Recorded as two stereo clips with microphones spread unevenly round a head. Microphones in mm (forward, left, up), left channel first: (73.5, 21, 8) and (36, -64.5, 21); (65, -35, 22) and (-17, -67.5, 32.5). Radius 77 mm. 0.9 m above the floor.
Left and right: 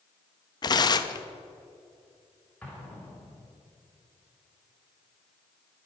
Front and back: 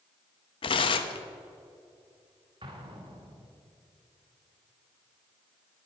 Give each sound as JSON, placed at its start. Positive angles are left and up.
{"t": 0.6, "sound": "tearing paper", "azimuth_deg": 30, "distance_m": 0.8}
{"t": 2.6, "sound": "an explosion", "azimuth_deg": 145, "distance_m": 1.8}